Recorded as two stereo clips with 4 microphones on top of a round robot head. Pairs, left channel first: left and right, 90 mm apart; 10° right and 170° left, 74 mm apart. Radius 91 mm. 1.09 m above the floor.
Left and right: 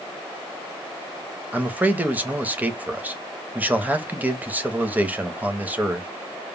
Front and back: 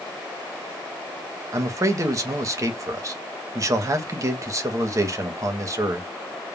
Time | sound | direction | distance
1.5 | a man speaking | 160° right | 0.7 m